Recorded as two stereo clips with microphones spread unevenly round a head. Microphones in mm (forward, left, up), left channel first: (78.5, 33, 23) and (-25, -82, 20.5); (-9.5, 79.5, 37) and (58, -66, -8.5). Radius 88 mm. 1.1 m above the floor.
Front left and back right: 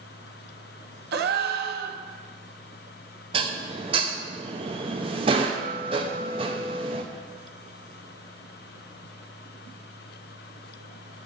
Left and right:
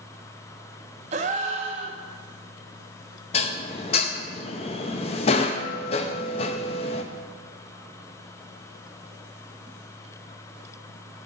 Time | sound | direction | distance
1.1 | a gasp | 125° right | 0.7 m
3.3 | dishes clattering | 165° left | 0.6 m